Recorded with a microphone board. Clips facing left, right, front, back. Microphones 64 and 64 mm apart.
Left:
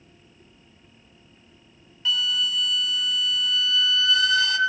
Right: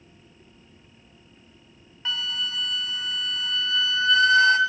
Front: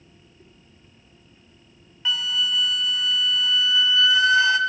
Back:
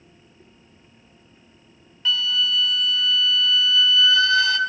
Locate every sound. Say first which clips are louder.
2.0 s a flute: left 4 dB, back 2 dB; 60° right, 0.7 m